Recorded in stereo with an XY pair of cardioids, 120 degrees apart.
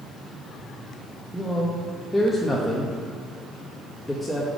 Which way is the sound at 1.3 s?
5° left.